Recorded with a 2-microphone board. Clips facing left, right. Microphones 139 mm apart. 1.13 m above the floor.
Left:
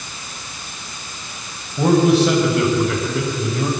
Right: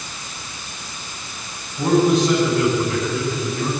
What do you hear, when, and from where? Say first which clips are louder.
1.8 s a man speaking: left 2 dB; 75° left (ahead or behind), 8 m; by 3.7 s 65° left (ahead or behind), 7 m